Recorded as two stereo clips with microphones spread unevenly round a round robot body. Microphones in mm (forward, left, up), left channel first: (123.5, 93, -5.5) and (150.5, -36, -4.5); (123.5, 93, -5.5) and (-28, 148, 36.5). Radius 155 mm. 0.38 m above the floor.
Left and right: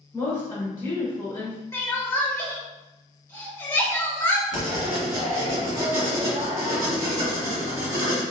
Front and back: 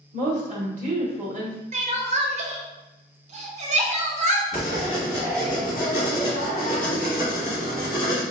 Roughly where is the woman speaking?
Behind left.